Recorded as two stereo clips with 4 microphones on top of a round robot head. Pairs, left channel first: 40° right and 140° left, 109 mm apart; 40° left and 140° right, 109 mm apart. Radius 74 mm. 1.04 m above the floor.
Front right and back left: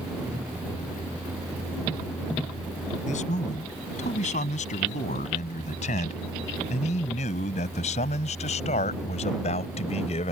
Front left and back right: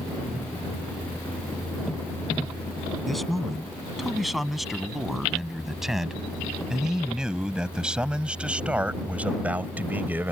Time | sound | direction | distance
3.1 | a man speaking | 50° right | ?